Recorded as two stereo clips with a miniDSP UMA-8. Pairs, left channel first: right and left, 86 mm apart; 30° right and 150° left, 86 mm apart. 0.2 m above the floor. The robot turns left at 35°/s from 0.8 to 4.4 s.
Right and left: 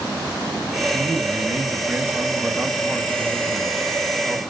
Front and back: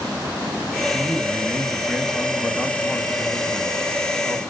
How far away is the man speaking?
About 1.0 m.